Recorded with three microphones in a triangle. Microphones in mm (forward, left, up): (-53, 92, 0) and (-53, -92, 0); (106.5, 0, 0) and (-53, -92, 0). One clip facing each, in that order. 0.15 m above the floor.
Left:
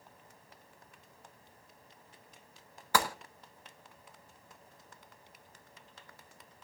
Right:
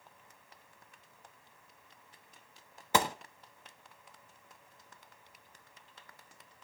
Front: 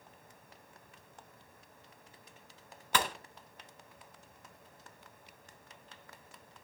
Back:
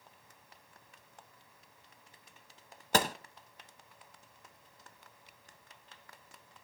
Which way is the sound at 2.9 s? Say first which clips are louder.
Right 1 dB, back 4 dB; 150° right.